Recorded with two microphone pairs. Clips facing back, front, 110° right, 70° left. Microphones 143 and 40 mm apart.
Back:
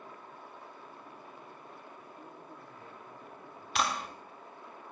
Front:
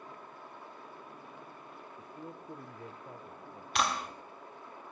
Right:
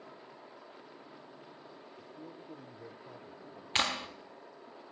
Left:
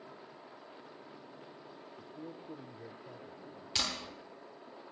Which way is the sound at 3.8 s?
95° right.